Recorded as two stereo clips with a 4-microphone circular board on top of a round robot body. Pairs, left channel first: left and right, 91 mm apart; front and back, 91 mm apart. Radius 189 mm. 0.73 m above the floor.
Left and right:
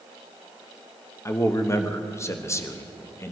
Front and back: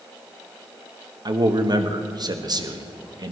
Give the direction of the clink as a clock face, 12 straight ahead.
I don't hear a clink.